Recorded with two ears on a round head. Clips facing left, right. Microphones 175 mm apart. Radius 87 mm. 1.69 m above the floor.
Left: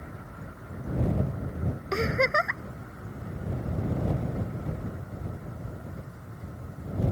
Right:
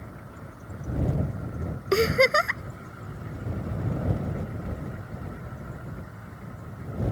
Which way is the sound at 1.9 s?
40° right (ahead or behind).